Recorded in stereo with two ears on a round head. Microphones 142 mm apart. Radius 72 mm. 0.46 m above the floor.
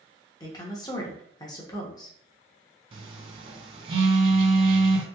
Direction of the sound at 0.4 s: 25° left (ahead or behind).